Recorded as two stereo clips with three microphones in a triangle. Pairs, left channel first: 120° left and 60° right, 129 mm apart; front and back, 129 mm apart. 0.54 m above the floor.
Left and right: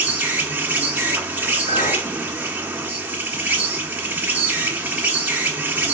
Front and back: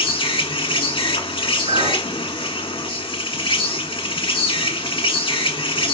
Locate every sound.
0.0 s an insect: 10° left, 1.5 m
1.7 s a clink: 145° left, 3.5 m